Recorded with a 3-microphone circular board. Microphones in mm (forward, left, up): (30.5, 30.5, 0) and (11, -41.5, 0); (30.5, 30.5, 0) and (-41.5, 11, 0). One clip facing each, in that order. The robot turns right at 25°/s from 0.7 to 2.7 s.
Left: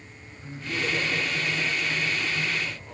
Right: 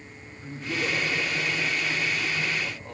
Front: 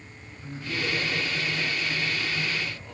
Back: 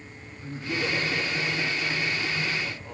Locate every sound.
0.4 s laughter: 135° right, 4 m; by 3.0 s 85° right, 4 m